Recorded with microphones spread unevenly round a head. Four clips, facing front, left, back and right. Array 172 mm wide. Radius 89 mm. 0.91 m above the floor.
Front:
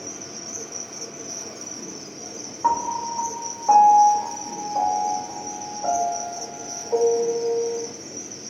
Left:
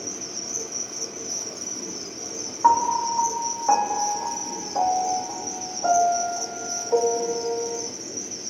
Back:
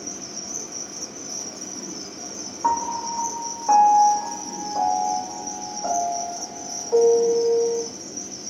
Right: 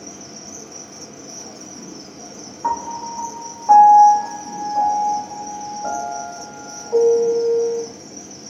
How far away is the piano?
About 0.6 m.